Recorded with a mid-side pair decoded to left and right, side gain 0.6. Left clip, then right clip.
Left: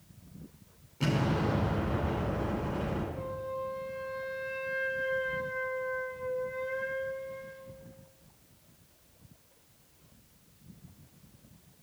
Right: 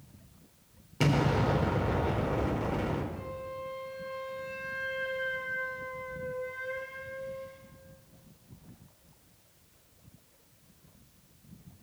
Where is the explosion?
55° right, 3.5 m.